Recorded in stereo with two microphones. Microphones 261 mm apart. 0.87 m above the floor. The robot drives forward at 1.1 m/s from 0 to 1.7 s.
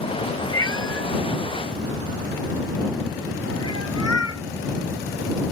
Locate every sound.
0.5 s a cat meowing: 55° left (ahead or behind); by 4.4 s 70° left (ahead or behind)